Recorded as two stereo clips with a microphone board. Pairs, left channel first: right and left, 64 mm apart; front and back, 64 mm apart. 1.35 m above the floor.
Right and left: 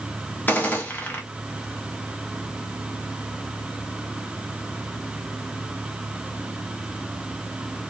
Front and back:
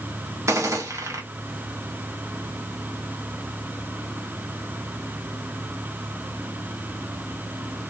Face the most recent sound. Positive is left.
turn(degrees=-145)